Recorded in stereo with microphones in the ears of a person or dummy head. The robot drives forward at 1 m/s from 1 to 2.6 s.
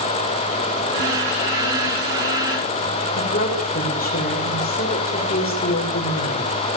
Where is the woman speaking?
45° left (ahead or behind), 7 m.